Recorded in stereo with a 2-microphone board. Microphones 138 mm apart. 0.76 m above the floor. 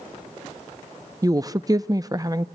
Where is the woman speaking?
25° right (ahead or behind), 0.5 m.